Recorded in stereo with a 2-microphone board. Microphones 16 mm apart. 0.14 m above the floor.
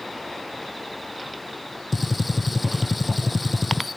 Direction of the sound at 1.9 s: 5° left (ahead or behind).